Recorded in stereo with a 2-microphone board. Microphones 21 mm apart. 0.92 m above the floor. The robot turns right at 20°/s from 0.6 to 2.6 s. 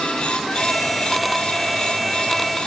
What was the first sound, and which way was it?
Only background noise.